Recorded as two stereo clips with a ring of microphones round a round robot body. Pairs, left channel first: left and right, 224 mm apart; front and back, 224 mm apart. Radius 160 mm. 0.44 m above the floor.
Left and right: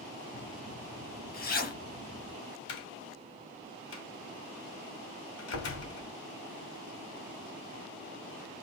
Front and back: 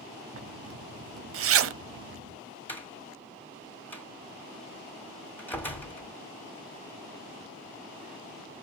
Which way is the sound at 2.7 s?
80° left.